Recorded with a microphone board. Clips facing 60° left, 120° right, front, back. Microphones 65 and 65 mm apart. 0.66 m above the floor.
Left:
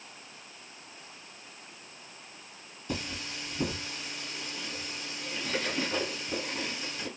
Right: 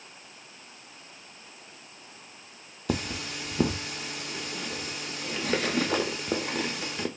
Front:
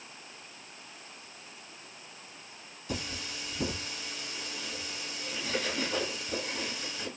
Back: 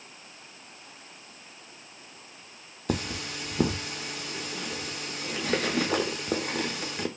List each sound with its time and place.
2.9 s cutlery clinking: 145° right, 0.5 m